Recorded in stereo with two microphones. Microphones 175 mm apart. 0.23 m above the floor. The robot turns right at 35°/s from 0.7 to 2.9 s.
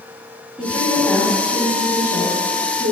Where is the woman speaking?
5° right, 4 m; by 2.9 s 75° left, 4 m.